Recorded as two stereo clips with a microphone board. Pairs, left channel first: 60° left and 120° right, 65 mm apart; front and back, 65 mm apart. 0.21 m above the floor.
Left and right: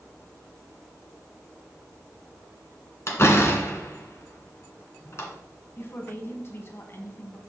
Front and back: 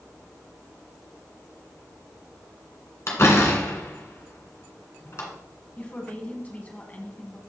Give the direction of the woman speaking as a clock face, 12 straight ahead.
10 o'clock.